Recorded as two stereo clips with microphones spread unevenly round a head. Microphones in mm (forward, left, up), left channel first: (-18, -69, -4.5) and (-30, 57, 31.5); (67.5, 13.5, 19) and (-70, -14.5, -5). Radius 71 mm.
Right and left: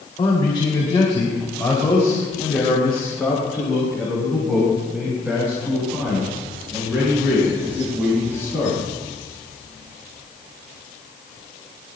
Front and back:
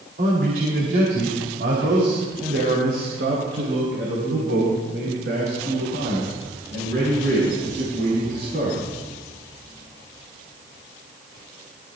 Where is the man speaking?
140° right, 4 m; by 8.8 s 165° left, 8.5 m.